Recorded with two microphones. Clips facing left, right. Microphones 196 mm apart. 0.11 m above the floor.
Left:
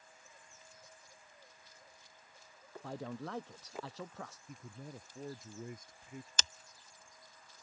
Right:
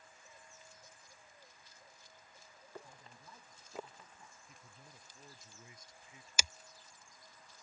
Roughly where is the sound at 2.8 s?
Left.